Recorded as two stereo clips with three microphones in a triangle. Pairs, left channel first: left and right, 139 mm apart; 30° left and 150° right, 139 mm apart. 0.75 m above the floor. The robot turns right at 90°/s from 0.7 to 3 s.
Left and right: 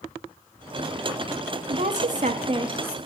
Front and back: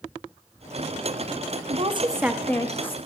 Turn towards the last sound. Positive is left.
turn(degrees=-5)